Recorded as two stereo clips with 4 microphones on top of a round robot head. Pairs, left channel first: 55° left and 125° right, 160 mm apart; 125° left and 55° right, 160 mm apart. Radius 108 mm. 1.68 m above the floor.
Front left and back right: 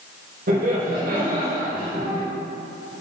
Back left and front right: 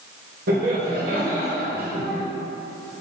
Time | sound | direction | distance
0.5 | laughter | 85° right | 1.9 m